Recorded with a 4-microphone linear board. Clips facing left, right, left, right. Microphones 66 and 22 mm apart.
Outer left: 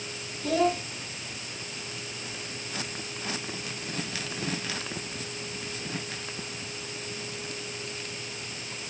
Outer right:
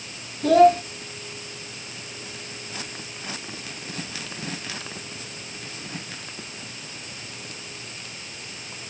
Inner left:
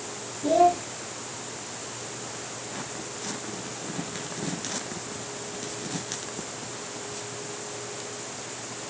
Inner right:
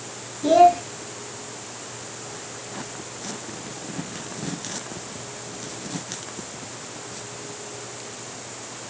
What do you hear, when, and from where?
0.4 s a child speaking: 60° right (ahead or behind), 1.0 m